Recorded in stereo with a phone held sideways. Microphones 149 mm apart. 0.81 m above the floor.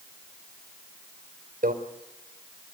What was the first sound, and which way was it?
A microwave, 70° right (ahead or behind).